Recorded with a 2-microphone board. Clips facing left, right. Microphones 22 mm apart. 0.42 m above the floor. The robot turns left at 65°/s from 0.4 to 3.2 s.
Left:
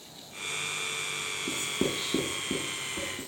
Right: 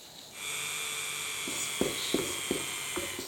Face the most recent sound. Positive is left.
turn(degrees=-60)  # may be behind; listen again after turning